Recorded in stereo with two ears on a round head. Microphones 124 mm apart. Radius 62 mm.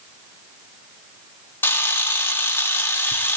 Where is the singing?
No singing in this recording.